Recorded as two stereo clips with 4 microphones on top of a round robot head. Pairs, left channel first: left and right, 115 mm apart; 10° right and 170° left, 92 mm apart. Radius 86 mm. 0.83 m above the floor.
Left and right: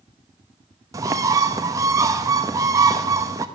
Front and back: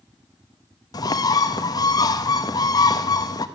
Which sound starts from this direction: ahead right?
A bird, at 0.9 s.